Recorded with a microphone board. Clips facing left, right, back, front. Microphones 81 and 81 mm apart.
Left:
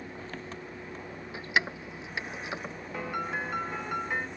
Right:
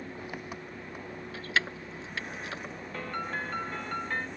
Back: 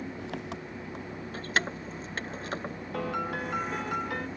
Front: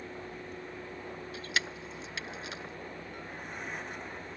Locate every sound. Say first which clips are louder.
0.0 s an engine running: right 1 dB, back 5 dB; 165° right
1.3 s keys jangling: left 2 dB, back 6 dB; 160° left
2.9 s a piano: left 2 dB, back 12 dB; 170° left